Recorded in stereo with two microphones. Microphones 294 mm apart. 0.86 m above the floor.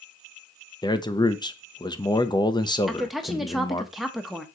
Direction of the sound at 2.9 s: Centre (ahead or behind).